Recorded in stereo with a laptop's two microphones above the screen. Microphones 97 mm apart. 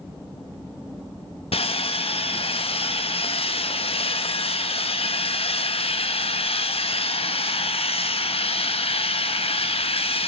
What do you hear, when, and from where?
1.5 s sawing: 80° left, 0.6 m